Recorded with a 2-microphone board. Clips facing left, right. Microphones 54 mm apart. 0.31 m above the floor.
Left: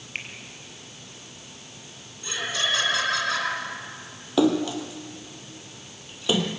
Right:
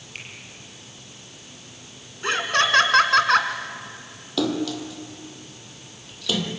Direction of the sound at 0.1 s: 40° left (ahead or behind).